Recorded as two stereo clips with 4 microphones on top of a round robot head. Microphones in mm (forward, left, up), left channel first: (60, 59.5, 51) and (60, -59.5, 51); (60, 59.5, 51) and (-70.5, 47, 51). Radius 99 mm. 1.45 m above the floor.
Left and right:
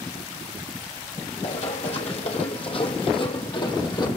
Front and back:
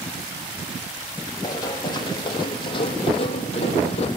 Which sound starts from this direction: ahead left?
Running footsteps, at 1.4 s.